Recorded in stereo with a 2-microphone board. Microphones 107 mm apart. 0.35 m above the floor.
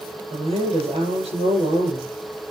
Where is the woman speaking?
85° right, 7 m.